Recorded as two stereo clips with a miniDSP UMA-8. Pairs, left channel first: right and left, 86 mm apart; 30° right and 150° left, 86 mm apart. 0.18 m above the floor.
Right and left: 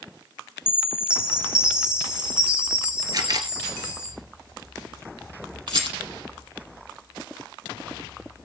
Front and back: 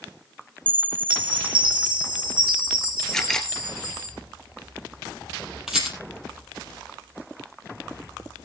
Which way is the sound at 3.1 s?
50° left.